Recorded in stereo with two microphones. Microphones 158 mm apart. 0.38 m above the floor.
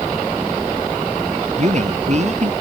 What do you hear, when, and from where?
1.6 s a man speaking: 45° right (ahead or behind)